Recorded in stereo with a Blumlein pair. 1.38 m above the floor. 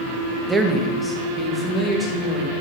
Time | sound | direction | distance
0.5 | a man speaking | 10° right | 1.1 m